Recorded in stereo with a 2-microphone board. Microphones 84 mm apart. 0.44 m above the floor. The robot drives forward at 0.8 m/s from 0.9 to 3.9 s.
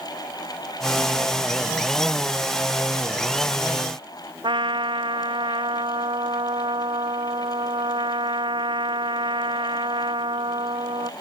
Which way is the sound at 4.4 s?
70° right (ahead or behind).